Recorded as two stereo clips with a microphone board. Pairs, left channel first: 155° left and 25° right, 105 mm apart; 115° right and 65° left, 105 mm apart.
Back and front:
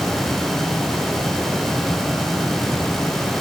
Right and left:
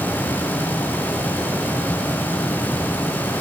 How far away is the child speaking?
No child speaking in this recording.